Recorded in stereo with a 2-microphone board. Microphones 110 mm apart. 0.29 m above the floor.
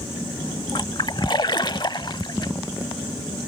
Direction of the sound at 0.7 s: 45° left (ahead or behind).